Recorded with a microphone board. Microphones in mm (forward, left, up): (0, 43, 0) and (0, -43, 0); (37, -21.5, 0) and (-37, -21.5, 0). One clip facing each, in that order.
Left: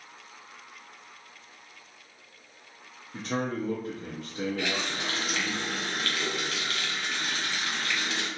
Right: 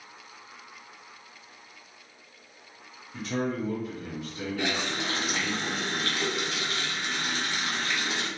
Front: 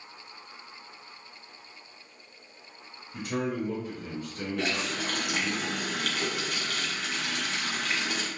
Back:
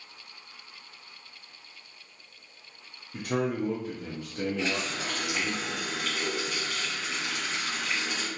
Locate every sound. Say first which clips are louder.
3.1 s a man speaking: right 1 dB, back 2 dB; 145° left, 0.5 m
4.6 s a running tap: right 1 dB, even; 25° right, 0.9 m